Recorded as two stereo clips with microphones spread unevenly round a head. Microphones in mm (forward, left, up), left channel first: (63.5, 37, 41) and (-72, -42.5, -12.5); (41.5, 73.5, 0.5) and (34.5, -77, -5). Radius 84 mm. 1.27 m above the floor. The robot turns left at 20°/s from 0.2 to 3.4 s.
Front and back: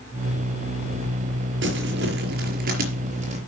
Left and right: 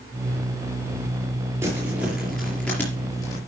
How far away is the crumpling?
About 4.5 m.